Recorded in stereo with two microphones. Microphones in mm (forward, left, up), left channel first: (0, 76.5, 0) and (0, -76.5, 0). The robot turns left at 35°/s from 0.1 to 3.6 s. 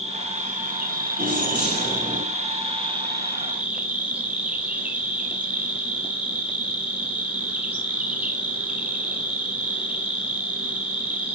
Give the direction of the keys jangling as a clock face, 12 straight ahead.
4 o'clock.